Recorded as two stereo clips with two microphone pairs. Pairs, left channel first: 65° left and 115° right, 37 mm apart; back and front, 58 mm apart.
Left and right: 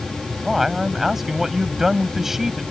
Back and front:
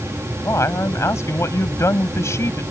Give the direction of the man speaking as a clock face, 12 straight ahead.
7 o'clock.